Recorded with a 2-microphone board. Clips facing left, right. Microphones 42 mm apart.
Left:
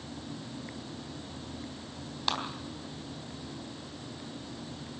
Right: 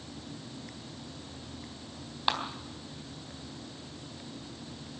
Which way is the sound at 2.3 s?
20° right (ahead or behind).